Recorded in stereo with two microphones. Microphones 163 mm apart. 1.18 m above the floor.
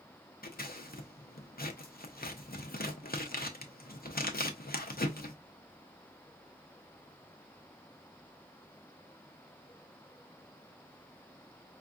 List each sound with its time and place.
0.4 s scissors: 65° left (ahead or behind), 0.7 m